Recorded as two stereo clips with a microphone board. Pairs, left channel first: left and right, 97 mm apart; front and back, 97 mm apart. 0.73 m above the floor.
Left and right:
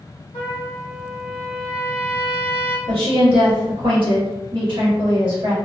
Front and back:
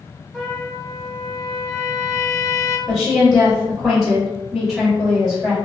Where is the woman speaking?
95° right, 1.5 m.